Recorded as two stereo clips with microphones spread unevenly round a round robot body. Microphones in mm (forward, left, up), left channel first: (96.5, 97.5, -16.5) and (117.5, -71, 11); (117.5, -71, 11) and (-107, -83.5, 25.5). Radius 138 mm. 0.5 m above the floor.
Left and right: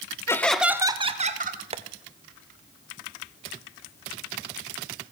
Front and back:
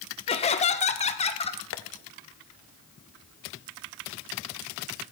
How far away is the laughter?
About 0.9 m.